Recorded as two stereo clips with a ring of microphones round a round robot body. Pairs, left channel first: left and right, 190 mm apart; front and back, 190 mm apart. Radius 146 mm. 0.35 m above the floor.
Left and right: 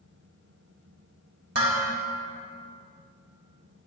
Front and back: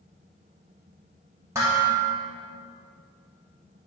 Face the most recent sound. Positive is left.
turn(degrees=-100)